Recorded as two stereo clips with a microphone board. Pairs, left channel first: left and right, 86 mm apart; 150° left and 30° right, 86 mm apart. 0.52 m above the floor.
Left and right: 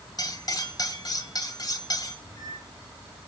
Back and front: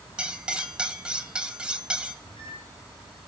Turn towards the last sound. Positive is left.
turn(degrees=140)